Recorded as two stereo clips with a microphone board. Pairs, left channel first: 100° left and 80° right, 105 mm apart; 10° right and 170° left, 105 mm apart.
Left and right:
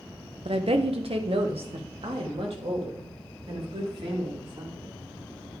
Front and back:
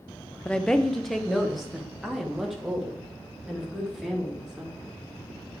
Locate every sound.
0.5 s a woman speaking: 90° right, 0.9 m; by 4.9 s 105° right, 4.5 m